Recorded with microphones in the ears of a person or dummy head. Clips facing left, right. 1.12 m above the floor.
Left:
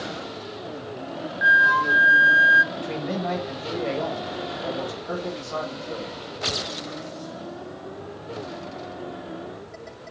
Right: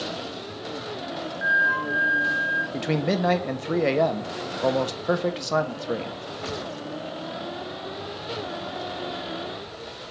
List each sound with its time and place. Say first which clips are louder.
1.4 s a flute: left 3 dB; 65° left (ahead or behind), 0.5 m
2.7 s a man speaking: right 4 dB; 80° right, 1.3 m